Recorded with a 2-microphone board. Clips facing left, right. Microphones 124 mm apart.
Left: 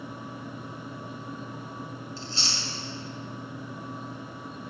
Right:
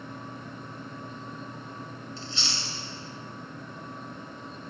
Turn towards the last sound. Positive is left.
turn(degrees=40)  # may be behind; listen again after turning